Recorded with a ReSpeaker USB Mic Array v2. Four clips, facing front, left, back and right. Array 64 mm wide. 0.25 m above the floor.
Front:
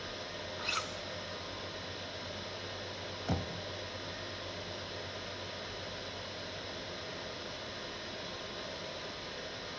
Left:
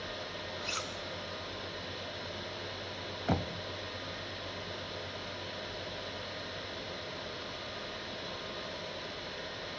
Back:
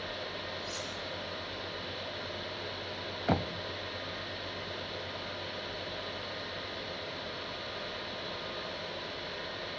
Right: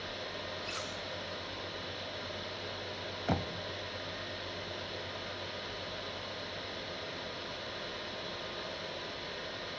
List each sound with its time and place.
0.6 s cutlery clinking: 20° left, 1.7 m
3.3 s knocking: 175° left, 0.7 m